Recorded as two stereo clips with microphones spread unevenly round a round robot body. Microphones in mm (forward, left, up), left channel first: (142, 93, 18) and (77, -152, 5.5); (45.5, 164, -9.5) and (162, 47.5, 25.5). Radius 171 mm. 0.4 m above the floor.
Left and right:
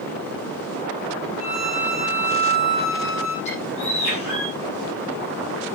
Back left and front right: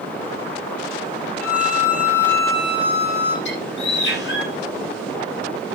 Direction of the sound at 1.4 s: 125° left.